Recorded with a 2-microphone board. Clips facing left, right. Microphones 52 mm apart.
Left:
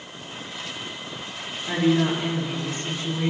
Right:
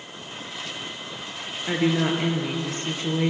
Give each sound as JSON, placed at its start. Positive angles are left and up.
{"t": 1.7, "sound": "a woman speaking", "side_deg": -45, "distance_m": 1.6}